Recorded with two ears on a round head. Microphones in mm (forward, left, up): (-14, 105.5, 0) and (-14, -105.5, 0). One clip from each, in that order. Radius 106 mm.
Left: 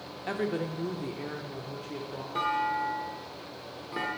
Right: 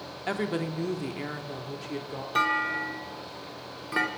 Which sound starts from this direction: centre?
A woman speaking, at 0.3 s.